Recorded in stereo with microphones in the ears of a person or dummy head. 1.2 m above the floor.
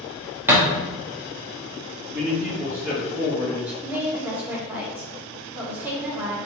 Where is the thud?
10° right (ahead or behind), 0.8 m.